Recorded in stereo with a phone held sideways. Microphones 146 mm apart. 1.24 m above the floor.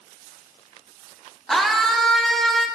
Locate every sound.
1.5 s a scream: centre (ahead or behind), 0.6 m